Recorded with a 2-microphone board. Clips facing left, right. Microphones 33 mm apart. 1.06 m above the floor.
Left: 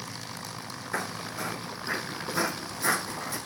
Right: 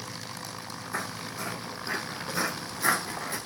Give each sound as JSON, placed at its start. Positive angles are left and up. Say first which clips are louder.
{"t": 0.9, "sound": "footsteps", "louder": "left 2 dB", "side_deg": 45, "distance_m": 1.3}